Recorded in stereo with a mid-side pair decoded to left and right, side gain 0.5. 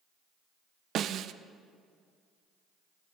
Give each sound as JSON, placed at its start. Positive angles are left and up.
{"t": 0.9, "sound": "a snare drum", "azimuth_deg": -60, "distance_m": 0.5}